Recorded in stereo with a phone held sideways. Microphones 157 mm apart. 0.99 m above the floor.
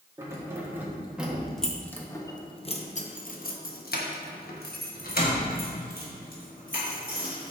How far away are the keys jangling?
About 1.5 m.